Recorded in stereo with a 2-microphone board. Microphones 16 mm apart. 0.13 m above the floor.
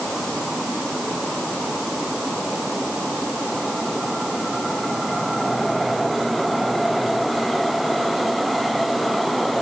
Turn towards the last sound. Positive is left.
No sound to turn to.